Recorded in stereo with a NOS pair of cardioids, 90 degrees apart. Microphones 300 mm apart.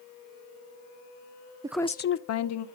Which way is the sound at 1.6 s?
15° right.